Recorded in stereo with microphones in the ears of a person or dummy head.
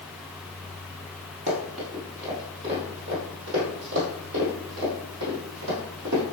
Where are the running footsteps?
40° right (ahead or behind), 2 m; by 6.2 s 70° right (ahead or behind), 4 m.